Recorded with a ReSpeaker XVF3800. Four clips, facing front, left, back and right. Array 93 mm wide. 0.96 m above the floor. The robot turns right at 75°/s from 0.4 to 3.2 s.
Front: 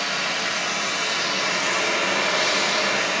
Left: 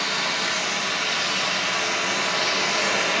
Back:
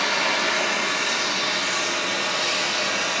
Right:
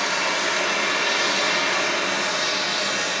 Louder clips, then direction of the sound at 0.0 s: Right 3 dB, back 3 dB; 160° right.